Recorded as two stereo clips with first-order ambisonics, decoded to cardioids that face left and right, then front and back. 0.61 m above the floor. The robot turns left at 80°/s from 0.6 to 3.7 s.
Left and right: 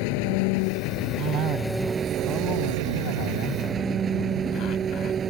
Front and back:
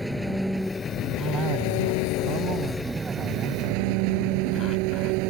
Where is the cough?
105° right; by 5.2 s 50° left.